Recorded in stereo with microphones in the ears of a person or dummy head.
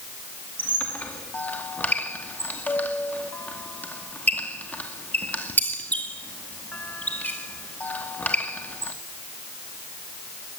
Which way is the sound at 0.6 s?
5° left (ahead or behind).